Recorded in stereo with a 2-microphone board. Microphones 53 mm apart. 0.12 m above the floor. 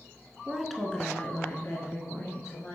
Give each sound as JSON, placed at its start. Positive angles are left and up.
{"t": 0.5, "sound": "a woman speaking", "side_deg": -15, "distance_m": 1.1}